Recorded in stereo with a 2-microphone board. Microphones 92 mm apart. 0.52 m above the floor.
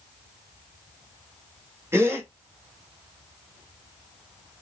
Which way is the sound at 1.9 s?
30° right (ahead or behind).